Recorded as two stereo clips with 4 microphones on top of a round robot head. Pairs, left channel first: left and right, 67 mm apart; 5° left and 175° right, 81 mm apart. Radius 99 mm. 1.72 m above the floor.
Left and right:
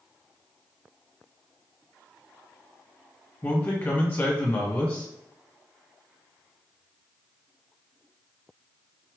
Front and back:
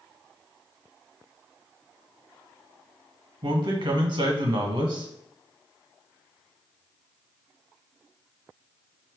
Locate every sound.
3.4 s a man speaking: 155° left, 1.4 m